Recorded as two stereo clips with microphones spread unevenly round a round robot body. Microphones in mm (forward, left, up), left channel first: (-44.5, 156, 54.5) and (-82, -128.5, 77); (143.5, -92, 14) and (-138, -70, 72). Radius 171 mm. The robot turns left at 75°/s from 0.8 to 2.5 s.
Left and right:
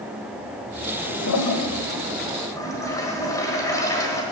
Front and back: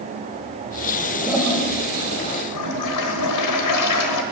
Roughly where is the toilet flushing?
Left.